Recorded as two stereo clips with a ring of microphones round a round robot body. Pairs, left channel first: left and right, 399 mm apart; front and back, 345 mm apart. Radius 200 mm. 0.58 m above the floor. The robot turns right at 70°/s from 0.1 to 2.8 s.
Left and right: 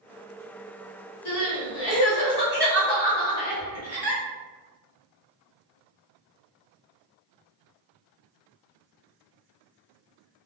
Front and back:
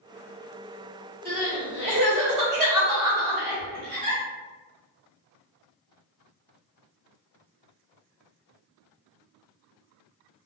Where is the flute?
No flute in this recording.